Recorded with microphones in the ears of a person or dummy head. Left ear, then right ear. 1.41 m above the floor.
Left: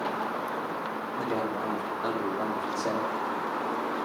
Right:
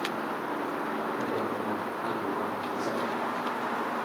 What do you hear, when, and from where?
1.2 s a man speaking: 80° left, 3.5 m; by 3.1 s 85° left, 2.5 m